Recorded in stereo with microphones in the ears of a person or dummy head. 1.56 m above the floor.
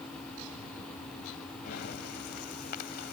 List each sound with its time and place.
1.6 s breathing: 55° left (ahead or behind)